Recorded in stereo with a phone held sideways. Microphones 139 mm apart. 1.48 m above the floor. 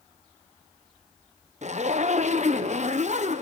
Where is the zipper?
55° right (ahead or behind), 0.8 m.